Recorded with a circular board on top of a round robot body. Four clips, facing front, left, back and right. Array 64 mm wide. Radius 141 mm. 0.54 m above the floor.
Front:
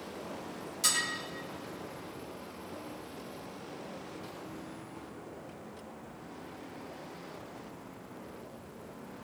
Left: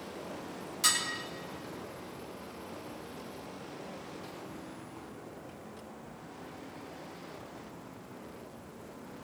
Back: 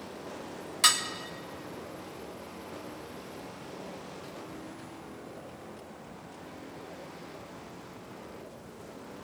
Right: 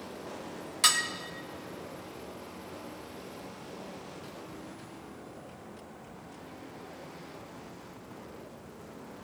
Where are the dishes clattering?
150° right, 2 m.